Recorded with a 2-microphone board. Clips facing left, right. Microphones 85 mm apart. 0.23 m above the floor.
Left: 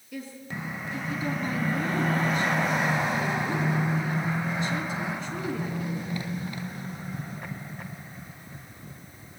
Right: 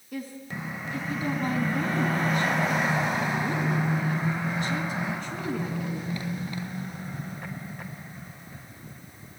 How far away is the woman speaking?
About 2.5 m.